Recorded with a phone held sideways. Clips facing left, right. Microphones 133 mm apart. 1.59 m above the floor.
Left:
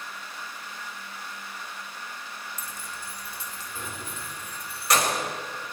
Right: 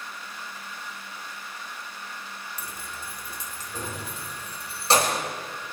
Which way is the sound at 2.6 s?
65° right (ahead or behind).